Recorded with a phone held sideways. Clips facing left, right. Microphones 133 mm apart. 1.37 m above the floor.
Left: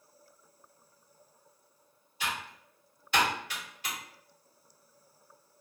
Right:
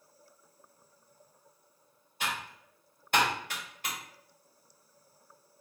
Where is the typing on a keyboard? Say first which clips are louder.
Even; 50° right (ahead or behind), 1.5 m.